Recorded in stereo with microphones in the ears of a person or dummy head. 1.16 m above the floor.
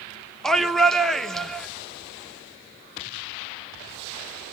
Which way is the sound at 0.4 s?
5° left (ahead or behind).